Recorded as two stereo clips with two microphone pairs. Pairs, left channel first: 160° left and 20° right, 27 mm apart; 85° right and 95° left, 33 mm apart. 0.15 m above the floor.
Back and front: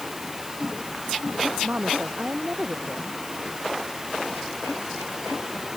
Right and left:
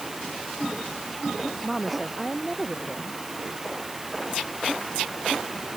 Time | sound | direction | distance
1.6 | a woman speaking | 5° left | ?